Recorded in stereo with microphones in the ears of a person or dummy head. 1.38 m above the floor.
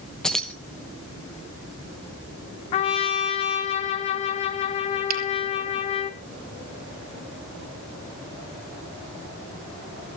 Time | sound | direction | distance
0.2 | keys jangling | 5° left (ahead or behind) | 1.0 m
2.7 | a trumpet | 30° left (ahead or behind) | 1.1 m
5.1 | a finger snap | 50° right (ahead or behind) | 3 m